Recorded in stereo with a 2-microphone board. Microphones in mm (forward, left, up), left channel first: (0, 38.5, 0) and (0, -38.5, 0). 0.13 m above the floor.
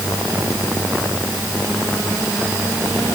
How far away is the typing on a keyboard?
I don't hear typing on a keyboard.